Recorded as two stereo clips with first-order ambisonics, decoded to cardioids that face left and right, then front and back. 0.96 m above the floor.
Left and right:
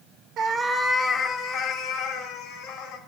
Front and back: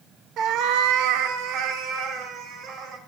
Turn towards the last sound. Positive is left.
turn(degrees=130)